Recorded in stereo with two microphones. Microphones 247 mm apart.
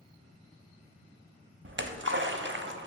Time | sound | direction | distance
1.6 | a splash | 50° right (ahead or behind) | 0.6 m